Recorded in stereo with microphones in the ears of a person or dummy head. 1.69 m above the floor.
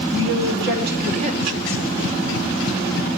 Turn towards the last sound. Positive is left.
turn(degrees=5)  # may be behind; listen again after turning